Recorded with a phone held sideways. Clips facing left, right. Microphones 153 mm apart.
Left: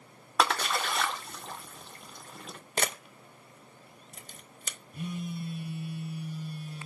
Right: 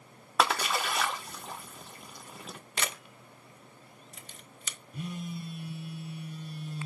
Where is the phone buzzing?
5° right (ahead or behind), 1.5 m.